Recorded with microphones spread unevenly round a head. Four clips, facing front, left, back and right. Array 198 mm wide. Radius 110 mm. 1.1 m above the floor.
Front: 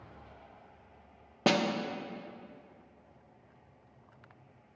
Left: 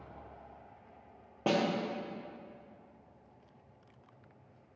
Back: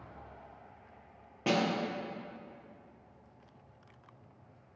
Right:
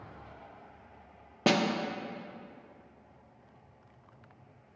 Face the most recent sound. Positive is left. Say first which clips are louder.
# right 3 dB, front 2 dB
turn(degrees=-60)